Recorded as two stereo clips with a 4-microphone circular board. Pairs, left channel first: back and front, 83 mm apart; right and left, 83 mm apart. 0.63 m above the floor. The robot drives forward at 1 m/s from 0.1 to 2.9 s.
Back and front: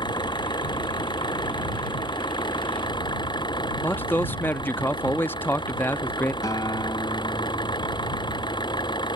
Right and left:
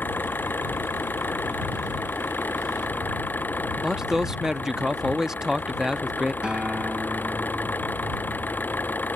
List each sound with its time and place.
0.0 s an engine running: 155° right
3.8 s a man speaking: 165° left
6.4 s a guitar: 165° left